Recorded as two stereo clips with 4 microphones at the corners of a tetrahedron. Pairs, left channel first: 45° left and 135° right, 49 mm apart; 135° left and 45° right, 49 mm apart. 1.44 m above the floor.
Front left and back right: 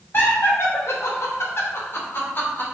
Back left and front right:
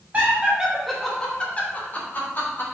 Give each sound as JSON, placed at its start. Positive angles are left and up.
{"t": 0.1, "sound": "laughter", "azimuth_deg": 10, "distance_m": 0.7}